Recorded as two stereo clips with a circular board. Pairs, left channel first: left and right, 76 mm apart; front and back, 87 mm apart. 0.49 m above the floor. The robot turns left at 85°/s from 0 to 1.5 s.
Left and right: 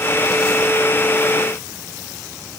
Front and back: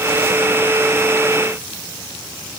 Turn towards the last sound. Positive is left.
No sound to turn to.